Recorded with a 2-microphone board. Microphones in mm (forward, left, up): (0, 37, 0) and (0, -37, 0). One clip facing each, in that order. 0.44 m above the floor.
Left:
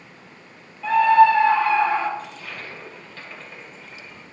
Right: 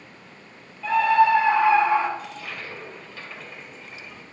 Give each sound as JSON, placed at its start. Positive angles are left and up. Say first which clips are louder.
{"t": 0.8, "sound": "a scream", "louder": "left 4 dB", "side_deg": 0, "distance_m": 1.4}
{"t": 2.2, "sound": "a toilet flushing", "louder": "even", "side_deg": -5, "distance_m": 2.0}